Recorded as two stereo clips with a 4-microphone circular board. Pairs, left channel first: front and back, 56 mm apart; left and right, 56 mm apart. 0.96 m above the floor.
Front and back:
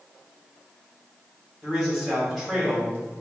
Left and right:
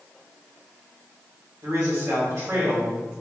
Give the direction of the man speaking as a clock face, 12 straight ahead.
3 o'clock.